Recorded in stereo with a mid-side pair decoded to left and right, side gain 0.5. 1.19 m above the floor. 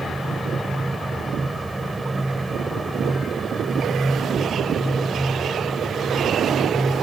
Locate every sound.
0.0 s a fan: 10° right